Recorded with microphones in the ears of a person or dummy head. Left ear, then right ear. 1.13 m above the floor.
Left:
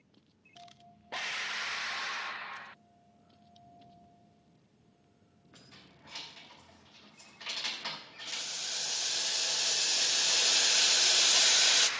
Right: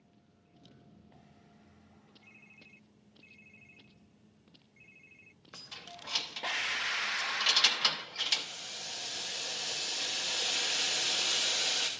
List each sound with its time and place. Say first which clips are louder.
5.5 s keys jangling: right 10 dB; 75° right (ahead or behind), 0.7 m
8.3 s boiling: left 1 dB; 30° left (ahead or behind), 0.5 m